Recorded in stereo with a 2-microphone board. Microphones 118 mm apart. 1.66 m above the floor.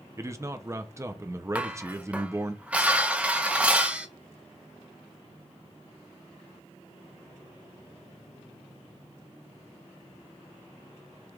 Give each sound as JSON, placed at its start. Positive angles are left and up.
{"t": 0.2, "sound": "a man speaking", "side_deg": -25, "distance_m": 0.6}
{"t": 1.6, "sound": "dishes clattering", "side_deg": -10, "distance_m": 0.6}